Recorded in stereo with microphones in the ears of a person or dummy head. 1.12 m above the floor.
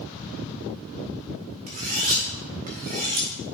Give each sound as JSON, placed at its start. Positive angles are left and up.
{"t": 1.7, "sound": "cutlery clinking", "side_deg": -35, "distance_m": 1.0}